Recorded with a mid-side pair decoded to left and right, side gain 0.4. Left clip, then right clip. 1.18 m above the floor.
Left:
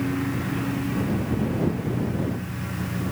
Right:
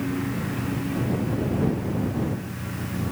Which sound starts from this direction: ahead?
A lawn mower, at 0.0 s.